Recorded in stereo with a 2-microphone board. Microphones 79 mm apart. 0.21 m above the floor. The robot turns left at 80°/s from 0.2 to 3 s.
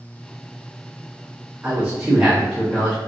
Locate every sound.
1.6 s a man speaking: 20° right (ahead or behind), 1.0 m; by 3.0 s 10° left (ahead or behind), 1.0 m